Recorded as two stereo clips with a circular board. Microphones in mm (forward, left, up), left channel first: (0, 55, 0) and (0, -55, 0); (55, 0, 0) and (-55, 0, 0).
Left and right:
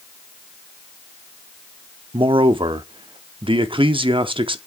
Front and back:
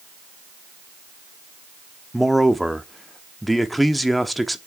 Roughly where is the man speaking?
Right.